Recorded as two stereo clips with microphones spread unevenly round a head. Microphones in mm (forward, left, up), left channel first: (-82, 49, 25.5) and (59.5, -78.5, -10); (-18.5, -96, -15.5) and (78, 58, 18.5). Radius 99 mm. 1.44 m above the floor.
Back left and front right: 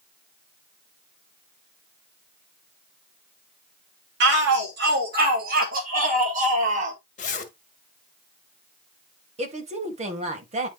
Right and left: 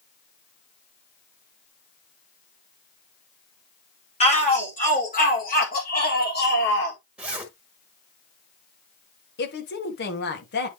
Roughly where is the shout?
Ahead right.